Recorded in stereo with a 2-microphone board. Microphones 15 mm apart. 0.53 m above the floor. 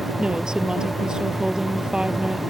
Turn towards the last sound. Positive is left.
turn(degrees=-65)  # may be behind; listen again after turning